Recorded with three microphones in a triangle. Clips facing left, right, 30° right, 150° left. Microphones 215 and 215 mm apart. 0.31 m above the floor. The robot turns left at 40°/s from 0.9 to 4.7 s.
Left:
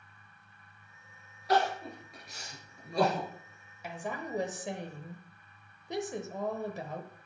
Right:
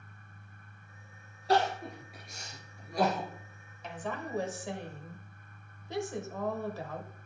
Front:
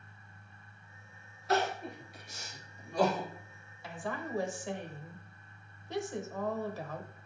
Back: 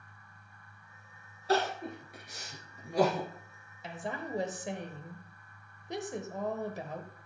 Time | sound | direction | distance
1.5 | crying | 150° right | 2 m
3.8 | a woman speaking | 155° left | 1.0 m